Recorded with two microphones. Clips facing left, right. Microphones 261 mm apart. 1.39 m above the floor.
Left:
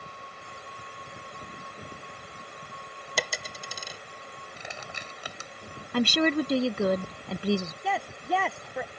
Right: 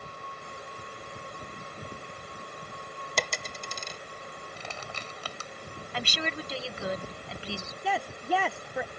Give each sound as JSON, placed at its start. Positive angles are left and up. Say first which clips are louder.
{"t": 3.2, "sound": "a dropped coin", "louder": "even", "side_deg": 5}
{"t": 4.6, "sound": "crushing", "louder": "left 1 dB", "side_deg": 15}
{"t": 5.9, "sound": "a woman speaking", "louder": "left 13 dB", "side_deg": 55}
{"t": 7.8, "sound": "a woman speaking", "louder": "even", "side_deg": -5}